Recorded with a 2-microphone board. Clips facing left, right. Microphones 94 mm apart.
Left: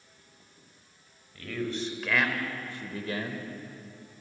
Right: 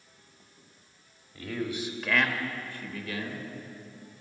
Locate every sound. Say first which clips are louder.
1.4 s a man speaking: even; 20° right (ahead or behind), 1.9 m; by 3.5 s 45° left (ahead or behind), 1.6 m